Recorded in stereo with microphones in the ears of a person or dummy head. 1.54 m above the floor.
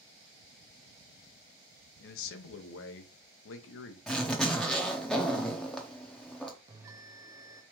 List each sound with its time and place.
2.0 s a man speaking: 75° left (ahead or behind), 0.7 m
4.1 s a zipper: 10° left (ahead or behind), 0.6 m
6.7 s a bell: 15° right (ahead or behind), 0.5 m